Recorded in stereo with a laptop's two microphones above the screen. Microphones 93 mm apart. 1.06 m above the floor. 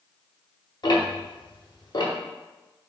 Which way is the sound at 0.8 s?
50° left (ahead or behind).